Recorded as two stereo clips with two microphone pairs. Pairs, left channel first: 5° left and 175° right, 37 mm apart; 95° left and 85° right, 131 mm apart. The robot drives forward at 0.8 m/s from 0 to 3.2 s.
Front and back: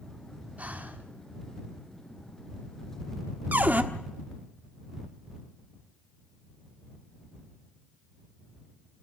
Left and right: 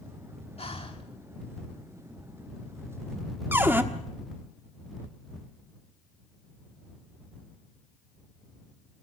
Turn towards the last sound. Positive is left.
turn(degrees=-155)